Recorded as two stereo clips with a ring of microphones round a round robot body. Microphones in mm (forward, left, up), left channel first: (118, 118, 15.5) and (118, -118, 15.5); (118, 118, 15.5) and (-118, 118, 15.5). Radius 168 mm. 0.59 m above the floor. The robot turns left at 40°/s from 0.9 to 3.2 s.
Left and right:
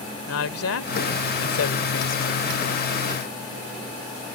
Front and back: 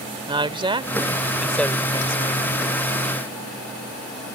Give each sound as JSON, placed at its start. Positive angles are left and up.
{"t": 0.3, "sound": "a woman speaking", "azimuth_deg": 115}